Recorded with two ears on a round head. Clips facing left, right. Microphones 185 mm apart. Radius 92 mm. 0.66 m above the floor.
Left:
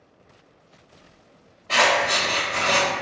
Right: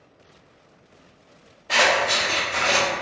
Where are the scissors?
15° right (ahead or behind), 1.4 m.